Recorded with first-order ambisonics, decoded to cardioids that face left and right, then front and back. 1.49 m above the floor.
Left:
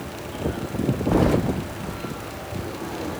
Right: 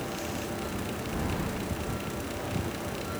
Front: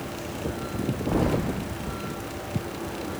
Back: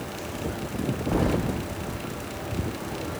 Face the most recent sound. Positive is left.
turn(degrees=95)